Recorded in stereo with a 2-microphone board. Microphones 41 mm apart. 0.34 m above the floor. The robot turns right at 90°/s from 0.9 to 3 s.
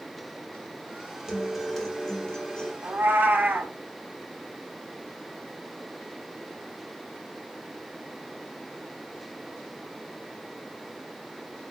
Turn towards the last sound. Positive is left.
turn(degrees=-55)  # may be behind; listen again after turning